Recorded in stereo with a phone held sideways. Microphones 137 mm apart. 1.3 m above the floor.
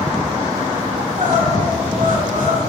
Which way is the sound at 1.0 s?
75° right (ahead or behind).